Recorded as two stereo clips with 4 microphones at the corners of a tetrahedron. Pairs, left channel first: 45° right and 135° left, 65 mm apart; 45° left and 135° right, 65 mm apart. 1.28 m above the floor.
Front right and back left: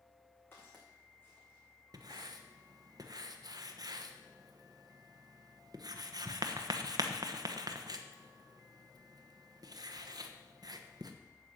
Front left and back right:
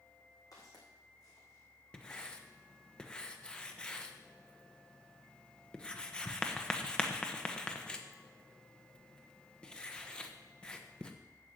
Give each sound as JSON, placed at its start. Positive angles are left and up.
{"t": 0.5, "sound": "footsteps", "azimuth_deg": 10, "distance_m": 5.0}
{"t": 1.9, "sound": "writing", "azimuth_deg": 120, "distance_m": 1.1}